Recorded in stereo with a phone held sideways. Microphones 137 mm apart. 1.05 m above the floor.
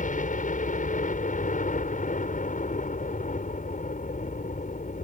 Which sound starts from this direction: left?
A helicopter, at 0.0 s.